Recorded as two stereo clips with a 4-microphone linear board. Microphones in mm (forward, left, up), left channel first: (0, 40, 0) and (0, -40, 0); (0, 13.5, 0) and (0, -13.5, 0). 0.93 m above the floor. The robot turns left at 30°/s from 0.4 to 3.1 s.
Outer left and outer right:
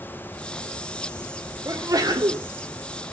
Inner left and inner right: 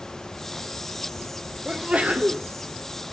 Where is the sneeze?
45° right (ahead or behind), 3 m; by 2.5 s 65° right (ahead or behind), 3 m.